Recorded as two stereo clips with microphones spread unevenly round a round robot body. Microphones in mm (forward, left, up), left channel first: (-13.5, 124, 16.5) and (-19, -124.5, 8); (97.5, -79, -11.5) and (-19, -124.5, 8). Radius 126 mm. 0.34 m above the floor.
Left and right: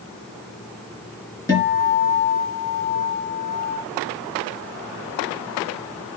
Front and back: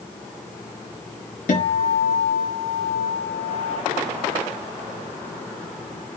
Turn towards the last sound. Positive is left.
turn(degrees=10)